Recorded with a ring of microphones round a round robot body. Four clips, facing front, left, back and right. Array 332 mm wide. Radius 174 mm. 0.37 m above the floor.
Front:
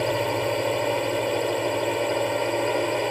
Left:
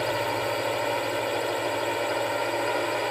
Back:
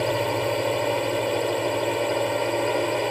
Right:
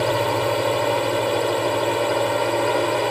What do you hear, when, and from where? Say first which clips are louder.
0.0 s a drone: right 6 dB, even; 90° right